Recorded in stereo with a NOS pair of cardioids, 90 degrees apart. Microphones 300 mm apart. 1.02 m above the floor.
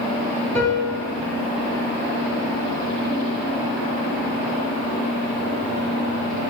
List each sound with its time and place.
0.6 s a piano: 5° left, 1.1 m